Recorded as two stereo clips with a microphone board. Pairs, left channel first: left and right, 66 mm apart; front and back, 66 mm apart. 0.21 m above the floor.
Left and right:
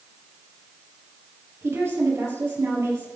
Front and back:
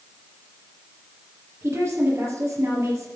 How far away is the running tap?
I don't hear a running tap.